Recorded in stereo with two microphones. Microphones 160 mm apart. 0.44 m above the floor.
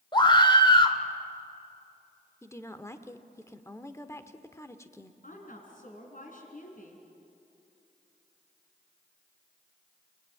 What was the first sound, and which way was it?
A scream, 30° left (ahead or behind).